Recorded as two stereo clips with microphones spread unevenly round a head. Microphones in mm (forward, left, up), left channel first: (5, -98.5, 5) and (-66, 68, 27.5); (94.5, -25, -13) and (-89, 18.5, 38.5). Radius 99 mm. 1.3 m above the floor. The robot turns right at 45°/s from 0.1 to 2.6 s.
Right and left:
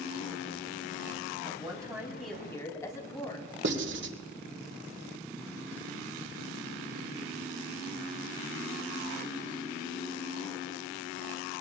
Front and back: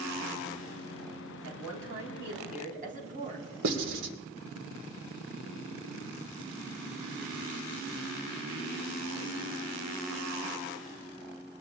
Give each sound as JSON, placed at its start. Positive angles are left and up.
{"t": 1.4, "sound": "a woman speaking", "azimuth_deg": 170, "distance_m": 4.5}
{"t": 3.6, "sound": "writing", "azimuth_deg": 135, "distance_m": 1.6}